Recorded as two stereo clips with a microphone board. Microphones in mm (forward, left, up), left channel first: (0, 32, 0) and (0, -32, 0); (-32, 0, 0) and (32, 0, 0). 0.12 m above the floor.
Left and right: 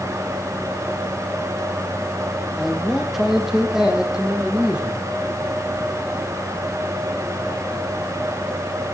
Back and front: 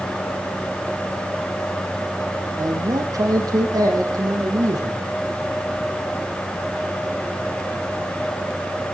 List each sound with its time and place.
2.6 s a man speaking: straight ahead, 4.5 m; by 5.0 s 15° right, 7 m